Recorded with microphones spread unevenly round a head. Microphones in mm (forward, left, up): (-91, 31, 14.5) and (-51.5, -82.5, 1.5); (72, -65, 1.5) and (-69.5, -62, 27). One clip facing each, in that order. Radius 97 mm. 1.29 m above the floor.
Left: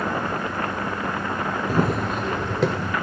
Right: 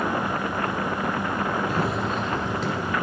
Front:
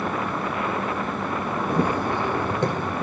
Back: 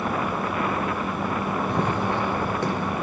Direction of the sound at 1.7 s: 90° left.